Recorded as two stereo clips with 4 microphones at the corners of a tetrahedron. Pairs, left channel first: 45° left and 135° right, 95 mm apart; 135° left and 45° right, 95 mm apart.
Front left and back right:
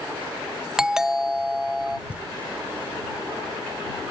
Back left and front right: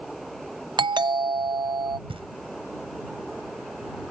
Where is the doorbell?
55° right.